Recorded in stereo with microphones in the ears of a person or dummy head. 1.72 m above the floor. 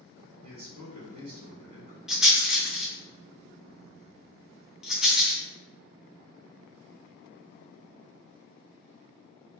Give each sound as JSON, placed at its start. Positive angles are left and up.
{"t": 0.4, "sound": "a man speaking", "side_deg": -65, "distance_m": 1.8}
{"t": 2.1, "sound": "a rattle", "side_deg": 5, "distance_m": 0.6}